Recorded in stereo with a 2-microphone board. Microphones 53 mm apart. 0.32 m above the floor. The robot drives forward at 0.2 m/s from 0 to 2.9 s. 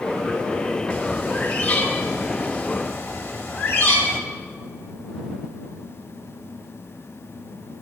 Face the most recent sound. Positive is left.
turn(degrees=35)  # may be behind; listen again after turning